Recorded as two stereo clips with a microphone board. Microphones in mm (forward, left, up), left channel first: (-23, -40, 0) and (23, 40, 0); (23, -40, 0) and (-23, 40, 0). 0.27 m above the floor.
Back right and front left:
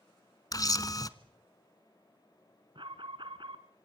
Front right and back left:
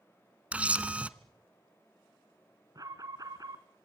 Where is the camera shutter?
165° right, 1.0 m.